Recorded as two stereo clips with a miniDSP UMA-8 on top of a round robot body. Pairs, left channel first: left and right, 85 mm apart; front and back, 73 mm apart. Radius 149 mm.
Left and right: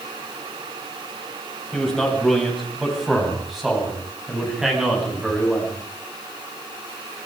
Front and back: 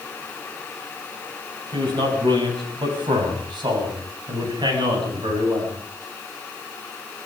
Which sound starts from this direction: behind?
A man speaking, at 1.7 s.